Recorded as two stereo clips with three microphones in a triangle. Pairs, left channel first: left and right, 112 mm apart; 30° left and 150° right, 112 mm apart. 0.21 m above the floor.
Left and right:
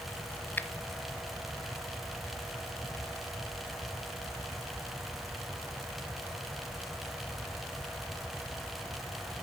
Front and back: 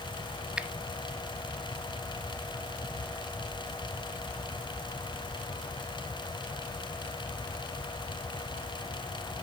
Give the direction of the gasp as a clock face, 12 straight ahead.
I don't hear a gasp.